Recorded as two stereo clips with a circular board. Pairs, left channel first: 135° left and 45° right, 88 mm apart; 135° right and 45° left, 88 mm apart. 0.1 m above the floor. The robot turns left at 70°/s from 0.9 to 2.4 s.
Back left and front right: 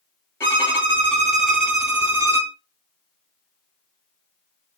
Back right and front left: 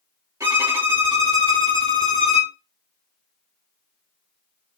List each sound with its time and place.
0.4 s a violin: 85° left, 1.6 m; by 2.5 s 20° right, 1.6 m